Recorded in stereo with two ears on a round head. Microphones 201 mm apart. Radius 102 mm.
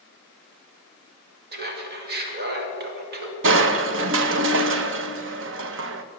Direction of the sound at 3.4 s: 60° right (ahead or behind).